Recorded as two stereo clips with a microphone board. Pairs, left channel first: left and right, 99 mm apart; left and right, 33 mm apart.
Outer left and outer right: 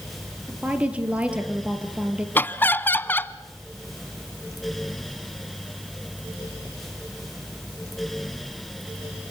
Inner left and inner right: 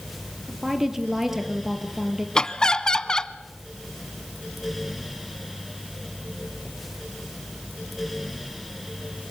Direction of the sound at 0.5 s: 10° right (ahead or behind).